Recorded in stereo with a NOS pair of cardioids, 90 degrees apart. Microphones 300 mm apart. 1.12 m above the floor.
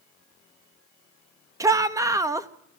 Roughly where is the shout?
Ahead.